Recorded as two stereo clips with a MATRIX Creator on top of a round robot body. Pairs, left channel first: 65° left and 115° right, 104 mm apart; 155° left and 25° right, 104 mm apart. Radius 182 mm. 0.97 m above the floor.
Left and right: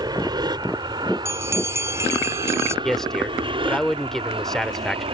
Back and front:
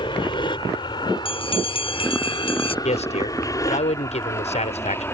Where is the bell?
175° right.